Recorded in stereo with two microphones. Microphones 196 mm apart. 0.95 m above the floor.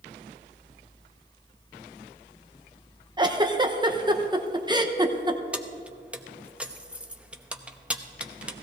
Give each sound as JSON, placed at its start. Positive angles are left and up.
{"t": 3.2, "sound": "a giggle", "side_deg": -20, "distance_m": 0.8}
{"t": 5.5, "sound": "keys jangling", "side_deg": -5, "distance_m": 0.7}